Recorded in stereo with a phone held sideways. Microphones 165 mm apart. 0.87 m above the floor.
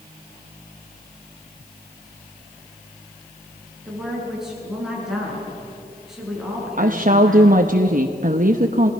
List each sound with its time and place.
3.9 s a woman speaking: 5° right (ahead or behind), 8.5 m
6.8 s a woman speaking: 55° right (ahead or behind), 0.9 m